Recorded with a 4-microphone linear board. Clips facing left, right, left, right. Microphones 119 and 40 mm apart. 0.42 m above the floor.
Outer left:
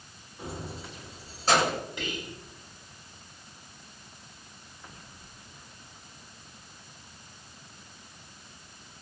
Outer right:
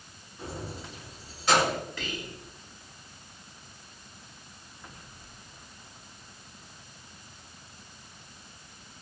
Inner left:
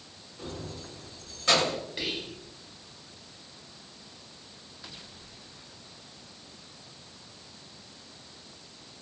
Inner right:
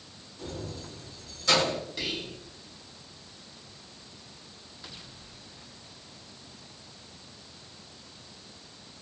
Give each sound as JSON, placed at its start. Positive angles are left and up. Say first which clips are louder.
{"t": 0.4, "sound": "keys jangling", "louder": "even, inner right 1 dB", "side_deg": 15, "distance_m": 0.9}
{"t": 2.0, "sound": "whispering", "louder": "outer left 1 dB, even", "side_deg": 20, "distance_m": 1.1}